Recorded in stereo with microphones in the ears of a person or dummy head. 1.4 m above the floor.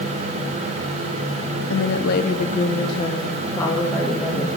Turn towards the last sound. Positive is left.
turn(degrees=0)  # may be behind; listen again after turning